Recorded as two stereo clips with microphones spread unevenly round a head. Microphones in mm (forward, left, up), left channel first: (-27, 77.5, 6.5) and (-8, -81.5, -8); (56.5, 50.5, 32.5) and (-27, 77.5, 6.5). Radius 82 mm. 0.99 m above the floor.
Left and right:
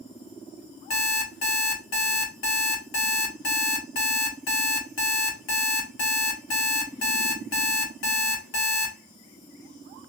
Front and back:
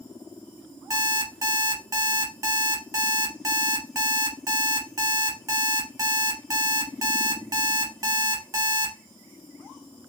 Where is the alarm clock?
110° left, 2 m.